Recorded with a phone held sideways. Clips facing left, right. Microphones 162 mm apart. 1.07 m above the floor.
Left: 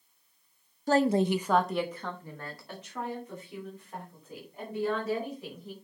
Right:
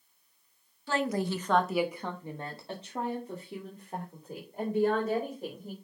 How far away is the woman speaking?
About 0.8 m.